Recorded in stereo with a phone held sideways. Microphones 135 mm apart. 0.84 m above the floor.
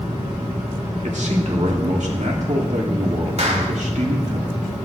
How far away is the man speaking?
About 2.5 m.